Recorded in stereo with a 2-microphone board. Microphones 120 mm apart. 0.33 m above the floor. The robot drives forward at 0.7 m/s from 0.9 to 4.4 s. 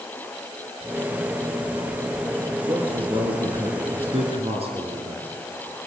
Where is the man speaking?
45° right (ahead or behind), 6.5 m; by 5.3 s 55° right (ahead or behind), 5.5 m.